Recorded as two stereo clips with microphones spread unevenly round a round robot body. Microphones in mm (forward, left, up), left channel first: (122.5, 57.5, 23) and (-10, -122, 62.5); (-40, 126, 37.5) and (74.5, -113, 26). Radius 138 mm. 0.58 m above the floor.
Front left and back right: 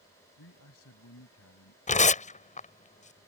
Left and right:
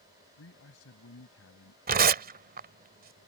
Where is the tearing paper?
5° right.